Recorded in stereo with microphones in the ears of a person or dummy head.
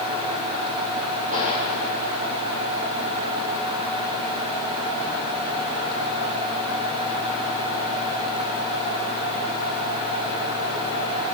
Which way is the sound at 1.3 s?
40° right (ahead or behind).